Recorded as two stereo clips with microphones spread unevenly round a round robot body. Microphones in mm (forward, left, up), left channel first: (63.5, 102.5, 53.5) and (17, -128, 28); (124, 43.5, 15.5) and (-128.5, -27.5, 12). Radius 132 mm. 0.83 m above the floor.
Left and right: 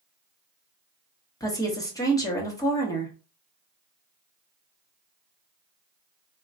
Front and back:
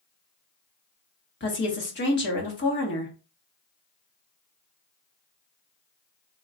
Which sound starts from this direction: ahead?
A woman speaking, at 1.4 s.